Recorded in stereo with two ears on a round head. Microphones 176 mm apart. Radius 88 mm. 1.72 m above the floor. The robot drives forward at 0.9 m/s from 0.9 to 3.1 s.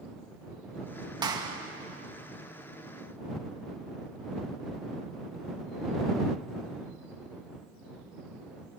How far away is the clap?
About 2 m.